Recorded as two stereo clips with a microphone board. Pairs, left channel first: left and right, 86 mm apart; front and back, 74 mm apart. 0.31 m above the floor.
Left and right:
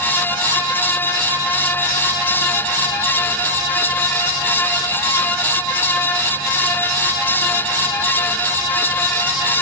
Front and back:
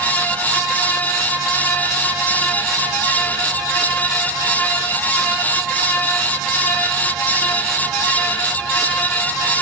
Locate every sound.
Only background noise.